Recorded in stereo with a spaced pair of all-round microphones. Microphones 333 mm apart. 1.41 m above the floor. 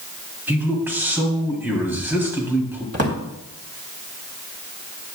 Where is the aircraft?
I don't hear an aircraft.